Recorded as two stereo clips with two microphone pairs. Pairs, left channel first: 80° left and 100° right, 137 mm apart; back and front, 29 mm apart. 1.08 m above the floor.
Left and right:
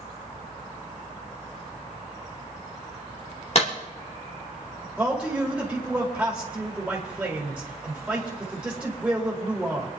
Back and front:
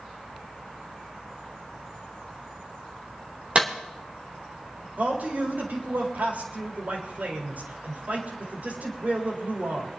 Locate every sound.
3.5 s a clap: 45° left, 3 m
5.0 s a man speaking: 15° right, 4 m